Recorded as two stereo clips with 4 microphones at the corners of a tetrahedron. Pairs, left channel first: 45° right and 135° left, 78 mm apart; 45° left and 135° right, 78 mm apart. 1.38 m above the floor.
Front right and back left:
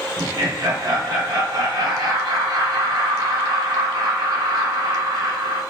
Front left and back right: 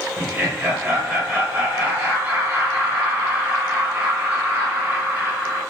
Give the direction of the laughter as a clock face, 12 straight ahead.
7 o'clock.